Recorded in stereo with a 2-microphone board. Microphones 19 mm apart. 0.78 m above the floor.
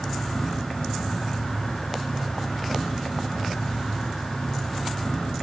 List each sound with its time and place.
0.0 s an insect: 40° left (ahead or behind), 1.1 m